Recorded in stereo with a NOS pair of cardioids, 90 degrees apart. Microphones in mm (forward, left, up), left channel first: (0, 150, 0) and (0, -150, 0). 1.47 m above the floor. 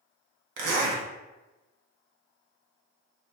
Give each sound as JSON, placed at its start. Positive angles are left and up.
{"t": 0.6, "sound": "a zipper", "azimuth_deg": -60, "distance_m": 0.9}